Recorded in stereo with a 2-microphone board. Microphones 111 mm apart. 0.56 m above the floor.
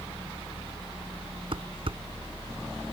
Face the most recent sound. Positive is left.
turn(degrees=-55)  # may be behind; listen again after turning